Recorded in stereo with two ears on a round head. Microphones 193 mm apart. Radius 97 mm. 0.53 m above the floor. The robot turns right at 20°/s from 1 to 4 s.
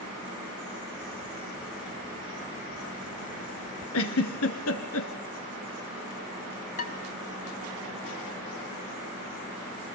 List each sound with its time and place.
3.9 s a giggle: 75° left (ahead or behind), 2.5 m
6.8 s dishes clattering: 40° left (ahead or behind), 2.5 m